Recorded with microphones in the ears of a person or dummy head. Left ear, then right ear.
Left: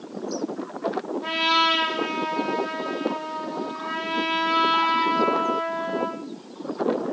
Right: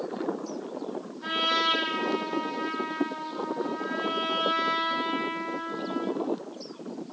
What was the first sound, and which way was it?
A trumpet, 30° right (ahead or behind).